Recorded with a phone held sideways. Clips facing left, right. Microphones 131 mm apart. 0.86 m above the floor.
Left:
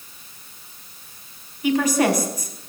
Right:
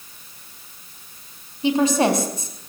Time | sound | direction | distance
1.6 | a woman speaking | 30° right (ahead or behind) | 5.5 m